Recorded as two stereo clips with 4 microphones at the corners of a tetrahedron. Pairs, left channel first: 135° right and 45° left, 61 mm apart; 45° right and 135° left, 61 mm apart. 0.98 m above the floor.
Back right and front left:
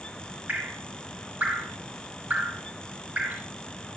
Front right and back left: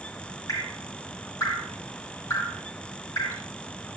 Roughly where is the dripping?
Ahead.